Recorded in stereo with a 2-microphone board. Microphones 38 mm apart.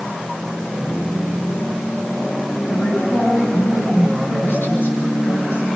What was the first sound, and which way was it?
A woman speaking, 70° left (ahead or behind).